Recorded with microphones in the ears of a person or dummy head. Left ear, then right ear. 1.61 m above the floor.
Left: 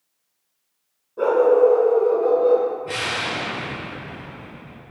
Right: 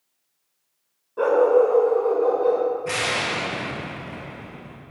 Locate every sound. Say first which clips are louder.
1.2 s a dog barking: left 2 dB; 20° right (ahead or behind), 1.4 m
2.9 s an explosion: right 1 dB; 55° right (ahead or behind), 1.6 m